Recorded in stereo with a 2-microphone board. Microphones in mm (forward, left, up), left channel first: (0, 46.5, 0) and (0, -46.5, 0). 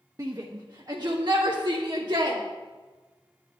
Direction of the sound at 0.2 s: 40° right (ahead or behind).